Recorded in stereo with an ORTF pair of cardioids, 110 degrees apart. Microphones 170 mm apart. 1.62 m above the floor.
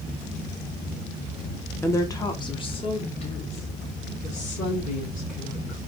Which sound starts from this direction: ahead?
A woman speaking, at 1.8 s.